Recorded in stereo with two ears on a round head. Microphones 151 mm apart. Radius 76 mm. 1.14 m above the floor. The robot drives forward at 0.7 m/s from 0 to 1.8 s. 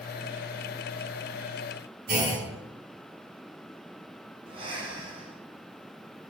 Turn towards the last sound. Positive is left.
turn(degrees=-30)  # may be behind; listen again after turning